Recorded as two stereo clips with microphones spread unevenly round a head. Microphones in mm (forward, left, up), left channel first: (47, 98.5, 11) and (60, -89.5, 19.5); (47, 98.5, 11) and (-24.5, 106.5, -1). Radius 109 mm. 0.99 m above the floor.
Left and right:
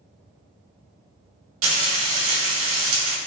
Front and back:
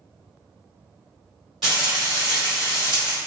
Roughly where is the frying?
Right.